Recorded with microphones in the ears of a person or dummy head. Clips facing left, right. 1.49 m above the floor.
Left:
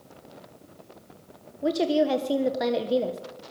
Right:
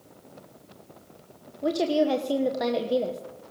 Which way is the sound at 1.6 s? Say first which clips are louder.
Even; 5° left (ahead or behind).